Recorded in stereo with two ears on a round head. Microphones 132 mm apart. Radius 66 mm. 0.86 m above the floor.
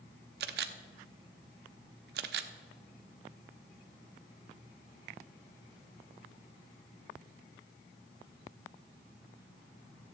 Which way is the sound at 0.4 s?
70° right (ahead or behind).